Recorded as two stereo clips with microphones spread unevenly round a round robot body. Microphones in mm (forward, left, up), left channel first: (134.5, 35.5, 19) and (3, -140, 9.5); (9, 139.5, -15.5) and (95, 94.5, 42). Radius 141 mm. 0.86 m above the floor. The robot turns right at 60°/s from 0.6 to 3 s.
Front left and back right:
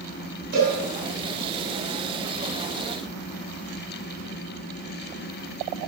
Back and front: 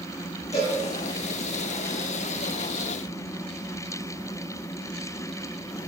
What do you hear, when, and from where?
0.5 s a cowbell: 170° left, 3 m; by 0.8 s straight behind, 3 m